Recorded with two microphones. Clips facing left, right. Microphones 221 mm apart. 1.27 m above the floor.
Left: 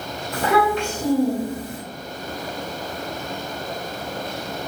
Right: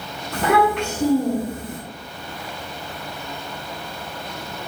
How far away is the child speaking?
About 1.4 m.